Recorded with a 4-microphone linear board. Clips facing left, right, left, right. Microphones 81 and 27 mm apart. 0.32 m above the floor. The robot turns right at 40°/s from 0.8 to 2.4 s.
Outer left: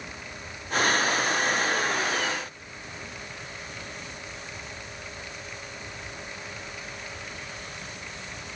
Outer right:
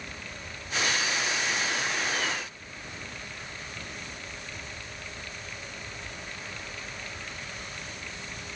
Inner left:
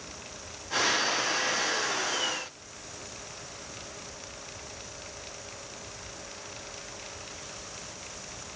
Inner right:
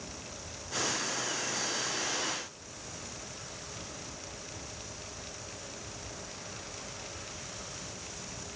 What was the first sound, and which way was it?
Only background noise.